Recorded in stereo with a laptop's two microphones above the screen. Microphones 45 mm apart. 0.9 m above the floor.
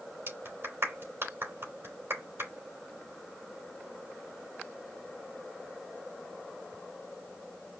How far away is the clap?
About 3.5 m.